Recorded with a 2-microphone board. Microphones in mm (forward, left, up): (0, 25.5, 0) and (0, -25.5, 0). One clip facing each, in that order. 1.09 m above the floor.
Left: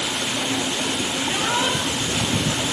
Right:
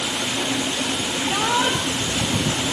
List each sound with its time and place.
1.2 s a shout: 85° right, 3 m